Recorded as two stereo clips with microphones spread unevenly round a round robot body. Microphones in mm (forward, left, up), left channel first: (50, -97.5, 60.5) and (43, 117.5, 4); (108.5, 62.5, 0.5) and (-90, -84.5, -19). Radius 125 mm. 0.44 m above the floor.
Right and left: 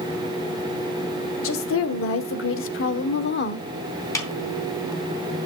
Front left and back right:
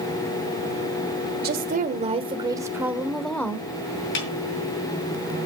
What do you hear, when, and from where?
1.4 s a woman speaking: 110° right, 1.4 m; by 3.7 s 45° right, 1.4 m
4.2 s a snare drum: 10° right, 4 m